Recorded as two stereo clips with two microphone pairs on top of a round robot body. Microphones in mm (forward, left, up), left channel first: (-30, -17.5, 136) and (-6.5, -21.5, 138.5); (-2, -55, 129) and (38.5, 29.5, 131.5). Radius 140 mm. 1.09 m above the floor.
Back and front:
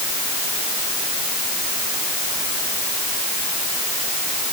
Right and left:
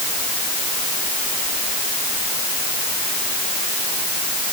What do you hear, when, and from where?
Only background noise.